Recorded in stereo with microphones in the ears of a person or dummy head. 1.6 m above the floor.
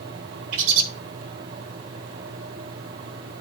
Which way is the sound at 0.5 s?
75° right (ahead or behind).